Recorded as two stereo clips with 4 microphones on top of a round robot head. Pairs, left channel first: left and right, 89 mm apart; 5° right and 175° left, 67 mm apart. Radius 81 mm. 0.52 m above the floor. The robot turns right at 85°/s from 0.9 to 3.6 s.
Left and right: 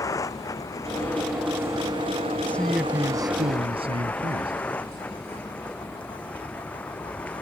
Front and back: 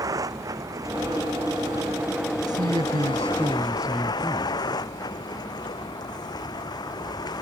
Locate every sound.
0.0 s a vehicle: 145° left; by 7.4 s 15° left
2.5 s a man speaking: 160° left; by 4.5 s 105° right